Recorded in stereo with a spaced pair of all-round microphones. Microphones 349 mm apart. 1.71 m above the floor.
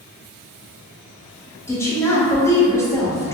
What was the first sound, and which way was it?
A woman speaking, 10° left (ahead or behind).